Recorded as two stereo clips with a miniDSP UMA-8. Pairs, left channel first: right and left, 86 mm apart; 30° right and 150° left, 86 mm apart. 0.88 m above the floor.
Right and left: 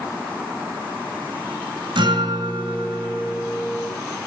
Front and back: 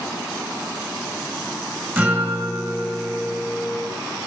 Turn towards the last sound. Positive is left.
turn(degrees=85)